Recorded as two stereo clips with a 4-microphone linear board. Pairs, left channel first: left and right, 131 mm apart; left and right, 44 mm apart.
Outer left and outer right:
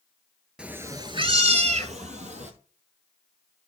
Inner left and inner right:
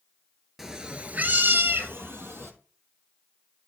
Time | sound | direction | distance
0.6 | a cat meowing | 5° right (ahead or behind) | 0.7 m